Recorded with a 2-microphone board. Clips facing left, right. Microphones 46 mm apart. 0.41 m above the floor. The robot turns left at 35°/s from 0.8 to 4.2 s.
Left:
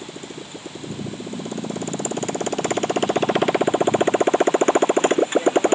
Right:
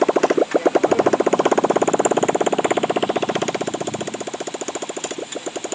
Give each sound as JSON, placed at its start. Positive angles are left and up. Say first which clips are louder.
{"t": 0.0, "sound": "a motorcycle", "louder": "right 19 dB", "azimuth_deg": -100}